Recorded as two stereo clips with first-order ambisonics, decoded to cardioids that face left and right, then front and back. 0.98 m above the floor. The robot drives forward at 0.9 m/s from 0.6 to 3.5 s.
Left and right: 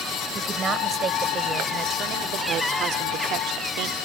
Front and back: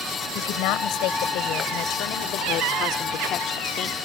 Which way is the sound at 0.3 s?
25° right.